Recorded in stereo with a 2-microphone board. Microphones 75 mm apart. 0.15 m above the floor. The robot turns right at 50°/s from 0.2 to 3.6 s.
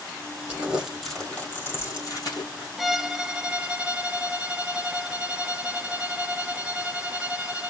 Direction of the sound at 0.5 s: 25° right (ahead or behind).